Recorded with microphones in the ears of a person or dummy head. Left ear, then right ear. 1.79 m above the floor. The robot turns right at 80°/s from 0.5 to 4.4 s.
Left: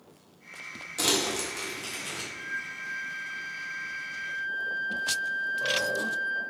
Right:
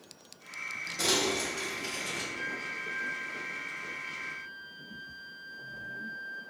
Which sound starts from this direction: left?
Crumpling, at 1.0 s.